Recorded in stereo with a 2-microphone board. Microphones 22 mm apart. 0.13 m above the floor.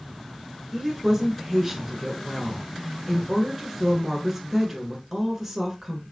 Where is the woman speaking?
15° right (ahead or behind), 1.8 m.